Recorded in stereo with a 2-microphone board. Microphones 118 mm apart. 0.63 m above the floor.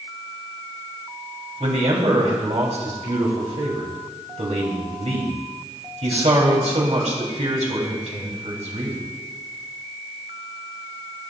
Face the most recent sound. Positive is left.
turn(degrees=-80)